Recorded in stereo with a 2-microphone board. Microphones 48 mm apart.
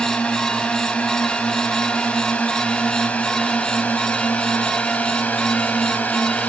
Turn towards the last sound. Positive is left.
turn(degrees=35)  # may be behind; listen again after turning